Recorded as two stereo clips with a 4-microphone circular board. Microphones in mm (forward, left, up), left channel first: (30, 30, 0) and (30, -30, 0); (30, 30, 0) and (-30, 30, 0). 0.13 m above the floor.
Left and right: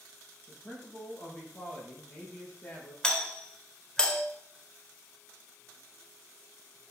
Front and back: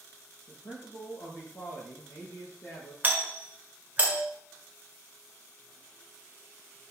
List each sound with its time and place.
0.5 s a man speaking: 25° left, 4.5 m
3.0 s a doorbell: 155° left, 1.8 m